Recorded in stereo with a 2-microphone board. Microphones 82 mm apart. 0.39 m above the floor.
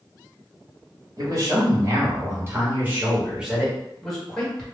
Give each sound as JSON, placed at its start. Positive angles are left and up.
{"t": 1.2, "sound": "a man speaking", "side_deg": -50, "distance_m": 1.7}